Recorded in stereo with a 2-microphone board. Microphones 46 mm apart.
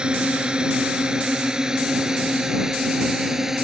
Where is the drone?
20° right (ahead or behind); by 3.6 s 10° right (ahead or behind).